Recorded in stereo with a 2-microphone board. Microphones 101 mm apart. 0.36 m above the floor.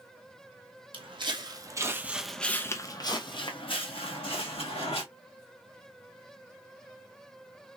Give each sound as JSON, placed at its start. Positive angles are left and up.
{"t": 0.9, "sound": "footsteps", "side_deg": -55, "distance_m": 0.9}